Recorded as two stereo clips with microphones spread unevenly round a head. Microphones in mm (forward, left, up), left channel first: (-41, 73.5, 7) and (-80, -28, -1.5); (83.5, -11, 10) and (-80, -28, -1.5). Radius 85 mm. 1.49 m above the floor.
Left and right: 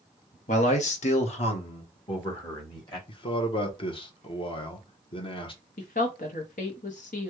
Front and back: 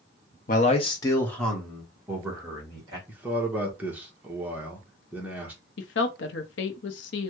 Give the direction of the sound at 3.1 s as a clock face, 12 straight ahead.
9 o'clock.